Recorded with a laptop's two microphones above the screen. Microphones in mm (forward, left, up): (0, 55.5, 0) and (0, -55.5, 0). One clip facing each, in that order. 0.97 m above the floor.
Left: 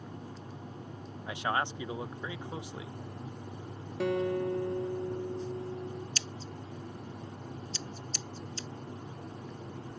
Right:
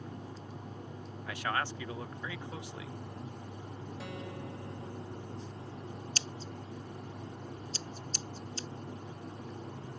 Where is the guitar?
80° left.